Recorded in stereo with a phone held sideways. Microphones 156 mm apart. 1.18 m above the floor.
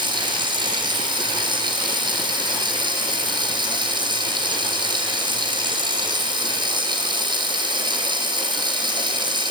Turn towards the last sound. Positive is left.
turn(degrees=-30)  # may be behind; listen again after turning